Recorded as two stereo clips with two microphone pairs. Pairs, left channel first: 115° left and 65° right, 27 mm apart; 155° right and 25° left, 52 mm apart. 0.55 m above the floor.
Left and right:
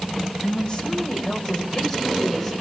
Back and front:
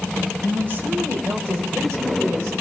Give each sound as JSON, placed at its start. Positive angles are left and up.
{"t": 0.4, "sound": "a woman speaking", "azimuth_deg": 70, "distance_m": 2.5}